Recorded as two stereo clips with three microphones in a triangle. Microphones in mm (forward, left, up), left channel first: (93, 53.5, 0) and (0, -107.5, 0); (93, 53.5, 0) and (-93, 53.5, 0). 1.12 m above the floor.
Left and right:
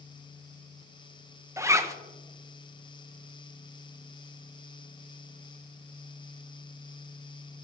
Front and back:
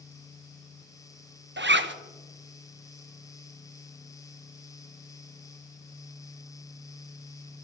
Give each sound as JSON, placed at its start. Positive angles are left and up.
{"t": 1.6, "sound": "a zipper", "azimuth_deg": 170, "distance_m": 0.6}